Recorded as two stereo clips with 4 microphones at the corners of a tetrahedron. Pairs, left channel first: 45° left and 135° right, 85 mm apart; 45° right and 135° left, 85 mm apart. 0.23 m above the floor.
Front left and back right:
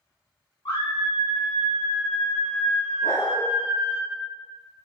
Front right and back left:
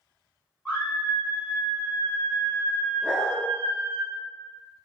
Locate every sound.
0.7 s a scream: 45° left, 1.8 m; by 4.0 s 95° right, 1.3 m
3.0 s a dog barking: 55° left, 1.1 m